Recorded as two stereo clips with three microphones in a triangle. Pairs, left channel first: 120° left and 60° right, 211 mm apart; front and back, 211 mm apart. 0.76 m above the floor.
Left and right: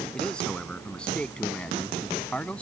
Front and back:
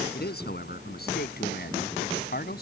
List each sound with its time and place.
0.1 s a man speaking: 35° left